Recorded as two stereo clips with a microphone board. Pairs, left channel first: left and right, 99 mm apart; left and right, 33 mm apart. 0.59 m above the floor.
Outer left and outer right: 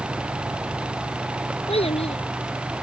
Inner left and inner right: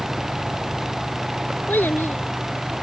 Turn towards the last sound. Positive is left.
turn(degrees=85)